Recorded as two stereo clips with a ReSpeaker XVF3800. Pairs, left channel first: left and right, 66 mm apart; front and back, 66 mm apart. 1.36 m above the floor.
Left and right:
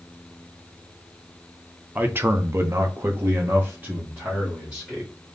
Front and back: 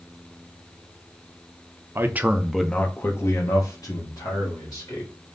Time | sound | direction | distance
1.9 | a man speaking | 140° right | 0.7 m